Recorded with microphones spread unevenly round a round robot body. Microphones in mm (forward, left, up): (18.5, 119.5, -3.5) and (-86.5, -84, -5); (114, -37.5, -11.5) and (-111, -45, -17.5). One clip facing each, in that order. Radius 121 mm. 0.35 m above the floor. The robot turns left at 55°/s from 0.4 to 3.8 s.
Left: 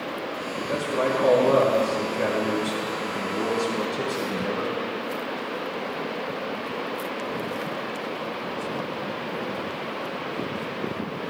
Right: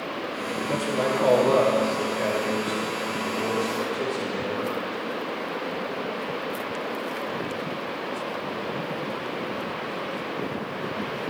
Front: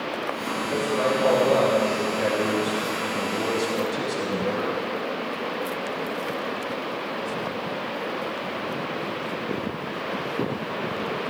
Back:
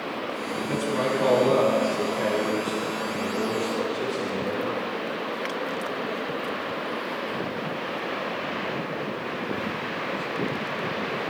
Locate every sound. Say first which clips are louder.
0.7 s a man speaking: left 1 dB, front 2 dB; 170° left, 4 m; by 4.8 s straight ahead, 4 m